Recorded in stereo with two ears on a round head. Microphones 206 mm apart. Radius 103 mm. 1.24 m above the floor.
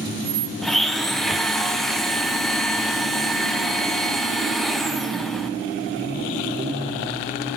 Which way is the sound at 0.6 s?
Centre (ahead or behind).